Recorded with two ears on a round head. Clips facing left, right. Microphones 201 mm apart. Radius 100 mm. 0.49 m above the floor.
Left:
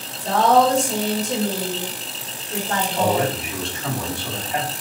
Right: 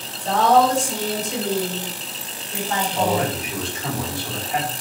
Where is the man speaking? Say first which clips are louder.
Left 1 dB; centre (ahead or behind), 1.4 m.